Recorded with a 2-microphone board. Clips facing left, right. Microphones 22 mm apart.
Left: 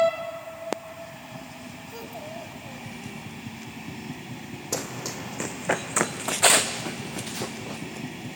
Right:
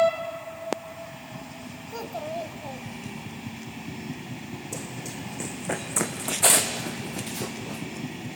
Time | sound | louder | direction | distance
1.9 | a child speaking | right 6 dB | 20° right (ahead or behind) | 1.0 m
4.7 | running footsteps | left 7 dB | 60° left (ahead or behind) | 0.7 m